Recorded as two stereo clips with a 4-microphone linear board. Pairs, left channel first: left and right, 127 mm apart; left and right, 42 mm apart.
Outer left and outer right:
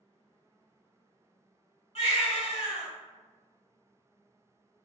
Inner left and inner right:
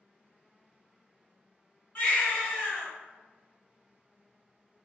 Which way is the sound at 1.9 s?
50° left (ahead or behind).